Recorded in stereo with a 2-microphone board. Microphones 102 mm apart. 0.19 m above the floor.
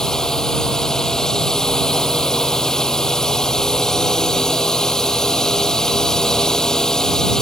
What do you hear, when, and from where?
0.0 s a drone: 5° left (ahead or behind)